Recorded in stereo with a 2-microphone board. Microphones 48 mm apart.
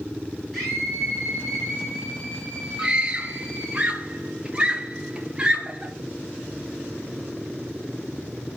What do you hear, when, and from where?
0.5 s a scream: centre (ahead or behind), 6 m; by 3.8 s 5° right (ahead or behind), 9 m
2.8 s a scream: 20° right (ahead or behind), 2.0 m